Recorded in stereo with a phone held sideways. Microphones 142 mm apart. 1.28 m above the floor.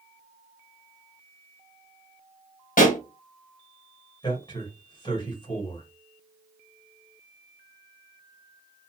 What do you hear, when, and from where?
2.8 s a pop: 75° left (ahead or behind), 1.1 m
4.2 s a man speaking: 35° left (ahead or behind), 1.5 m